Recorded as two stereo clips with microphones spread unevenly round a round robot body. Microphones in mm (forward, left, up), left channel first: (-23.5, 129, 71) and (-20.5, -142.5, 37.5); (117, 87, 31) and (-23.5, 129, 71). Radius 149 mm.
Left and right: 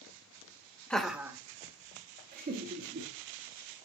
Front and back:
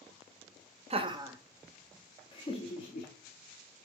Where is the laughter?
170° right, 0.7 m; by 3.9 s 35° right, 1.8 m.